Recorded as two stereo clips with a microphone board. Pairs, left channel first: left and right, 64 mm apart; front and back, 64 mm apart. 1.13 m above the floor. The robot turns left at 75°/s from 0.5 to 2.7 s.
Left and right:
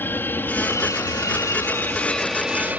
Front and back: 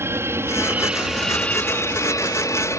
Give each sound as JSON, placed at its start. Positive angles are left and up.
{"t": 0.0, "sound": "an aircraft", "azimuth_deg": 140}